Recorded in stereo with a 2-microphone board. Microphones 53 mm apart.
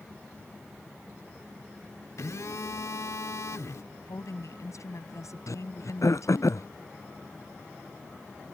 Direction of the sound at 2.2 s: 80° left.